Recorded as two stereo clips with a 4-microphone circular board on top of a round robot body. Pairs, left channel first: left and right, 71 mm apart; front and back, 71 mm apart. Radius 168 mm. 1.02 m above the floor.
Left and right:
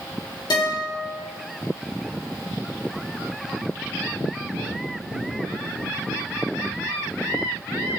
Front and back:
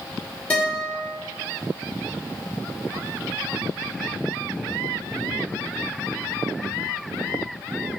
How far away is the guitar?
About 1.9 m.